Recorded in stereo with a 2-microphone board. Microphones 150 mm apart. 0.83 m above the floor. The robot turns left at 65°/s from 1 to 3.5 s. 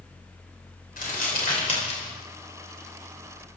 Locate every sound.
1.0 s crumpling: 75° left (ahead or behind), 3 m; by 2.2 s 30° left (ahead or behind), 3 m